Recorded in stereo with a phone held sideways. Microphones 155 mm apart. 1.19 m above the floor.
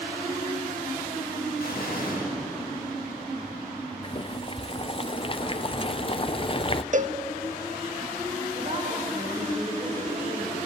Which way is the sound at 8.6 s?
35° right (ahead or behind).